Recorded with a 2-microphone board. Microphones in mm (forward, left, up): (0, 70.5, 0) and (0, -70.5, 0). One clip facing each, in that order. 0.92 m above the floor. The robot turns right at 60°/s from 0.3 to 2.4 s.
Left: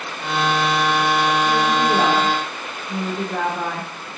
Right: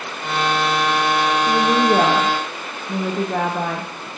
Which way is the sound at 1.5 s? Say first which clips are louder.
Right 2 dB; 145° right.